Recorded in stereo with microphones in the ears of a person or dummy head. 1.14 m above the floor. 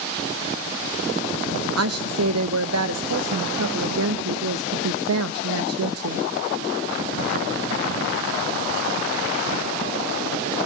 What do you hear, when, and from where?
1.8 s a woman speaking: 75° right (ahead or behind), 0.9 m